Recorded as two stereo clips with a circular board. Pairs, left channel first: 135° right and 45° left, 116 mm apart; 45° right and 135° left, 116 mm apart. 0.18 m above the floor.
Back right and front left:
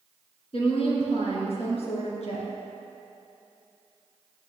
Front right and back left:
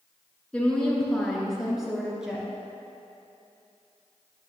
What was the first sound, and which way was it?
A woman speaking, 125° right.